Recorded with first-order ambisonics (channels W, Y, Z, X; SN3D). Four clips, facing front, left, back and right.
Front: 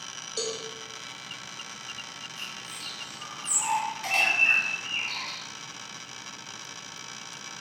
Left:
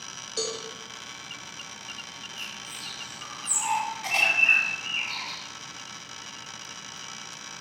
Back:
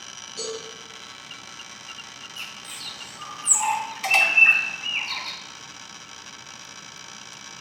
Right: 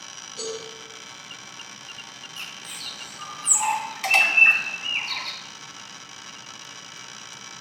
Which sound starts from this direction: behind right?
A bird, at 2.4 s.